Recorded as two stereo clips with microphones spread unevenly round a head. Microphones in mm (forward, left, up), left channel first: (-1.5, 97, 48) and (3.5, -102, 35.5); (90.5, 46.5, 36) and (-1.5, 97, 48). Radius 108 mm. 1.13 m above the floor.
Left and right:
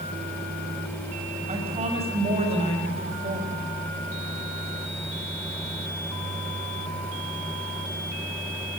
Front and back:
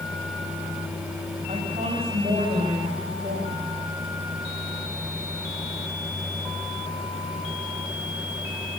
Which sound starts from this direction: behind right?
A woman speaking, at 1.5 s.